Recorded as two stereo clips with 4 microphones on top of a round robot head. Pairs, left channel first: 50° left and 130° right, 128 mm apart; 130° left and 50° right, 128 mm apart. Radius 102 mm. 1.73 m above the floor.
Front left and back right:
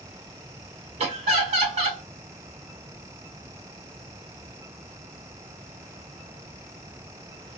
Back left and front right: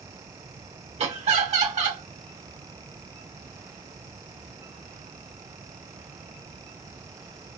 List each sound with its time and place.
1.0 s laughter: 90° right, 1.2 m